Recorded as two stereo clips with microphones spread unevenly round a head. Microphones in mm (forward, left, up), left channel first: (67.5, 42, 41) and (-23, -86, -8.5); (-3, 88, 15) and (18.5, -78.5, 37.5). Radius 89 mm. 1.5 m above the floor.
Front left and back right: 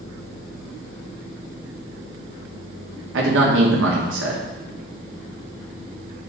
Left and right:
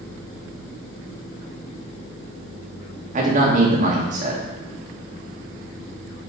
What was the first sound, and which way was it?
A man speaking, 135° right.